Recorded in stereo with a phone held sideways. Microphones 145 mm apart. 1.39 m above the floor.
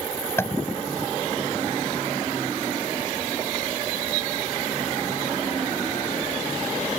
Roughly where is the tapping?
Centre.